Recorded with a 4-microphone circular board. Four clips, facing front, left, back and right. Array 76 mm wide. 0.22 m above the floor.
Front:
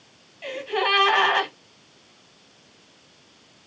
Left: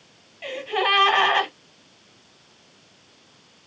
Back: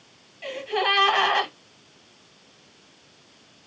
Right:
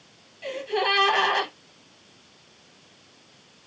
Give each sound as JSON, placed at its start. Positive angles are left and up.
{"t": 0.4, "sound": "a gasp", "azimuth_deg": 75, "distance_m": 1.4}